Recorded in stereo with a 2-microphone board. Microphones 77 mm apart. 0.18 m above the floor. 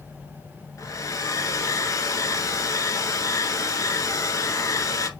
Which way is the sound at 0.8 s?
50° left (ahead or behind).